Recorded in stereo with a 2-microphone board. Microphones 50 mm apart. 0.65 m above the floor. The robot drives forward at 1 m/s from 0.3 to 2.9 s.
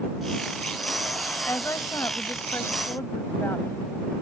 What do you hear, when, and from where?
1.5 s a woman speaking: 70° left (ahead or behind); by 4.2 s 55° left (ahead or behind)